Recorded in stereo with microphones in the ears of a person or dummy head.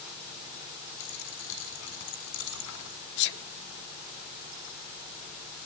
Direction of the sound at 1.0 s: 65° left (ahead or behind).